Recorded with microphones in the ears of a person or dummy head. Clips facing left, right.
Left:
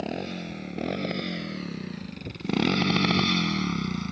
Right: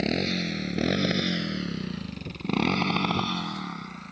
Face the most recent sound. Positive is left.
turn(degrees=60)  # may be behind; listen again after turning